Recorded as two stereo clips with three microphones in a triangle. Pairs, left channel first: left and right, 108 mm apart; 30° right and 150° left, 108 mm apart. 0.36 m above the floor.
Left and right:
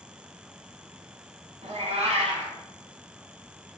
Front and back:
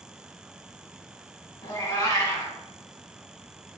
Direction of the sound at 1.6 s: 90° right.